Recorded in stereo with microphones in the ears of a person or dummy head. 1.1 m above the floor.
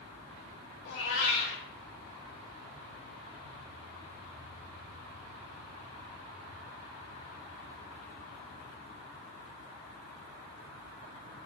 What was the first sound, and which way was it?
A cat meowing, 85° left.